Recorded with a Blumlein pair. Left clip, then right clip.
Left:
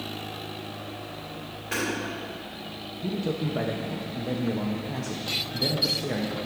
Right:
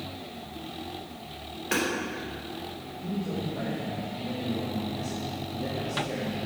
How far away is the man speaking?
About 0.7 m.